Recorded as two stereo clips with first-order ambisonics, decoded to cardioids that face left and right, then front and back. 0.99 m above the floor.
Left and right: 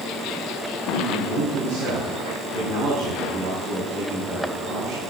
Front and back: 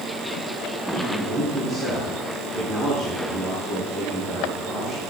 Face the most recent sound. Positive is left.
turn(degrees=-100)